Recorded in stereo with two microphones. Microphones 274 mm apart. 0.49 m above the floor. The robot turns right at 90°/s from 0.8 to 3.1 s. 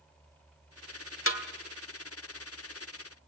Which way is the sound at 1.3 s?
50° left (ahead or behind).